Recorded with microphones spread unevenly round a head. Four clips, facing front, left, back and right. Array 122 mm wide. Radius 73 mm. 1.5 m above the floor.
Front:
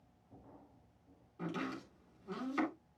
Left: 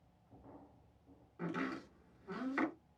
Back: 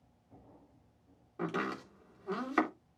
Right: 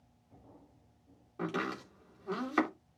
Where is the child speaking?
I don't hear a child speaking.